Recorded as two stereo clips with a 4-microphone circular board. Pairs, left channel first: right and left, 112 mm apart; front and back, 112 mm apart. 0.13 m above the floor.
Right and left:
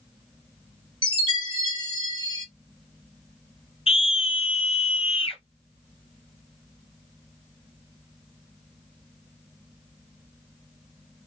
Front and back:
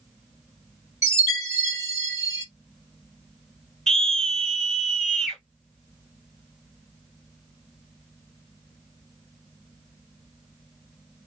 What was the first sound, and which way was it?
A chime, 125° right.